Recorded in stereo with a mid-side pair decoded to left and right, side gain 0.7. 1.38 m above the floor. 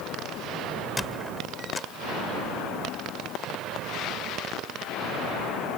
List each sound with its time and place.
1.0 s a squeak: 10° left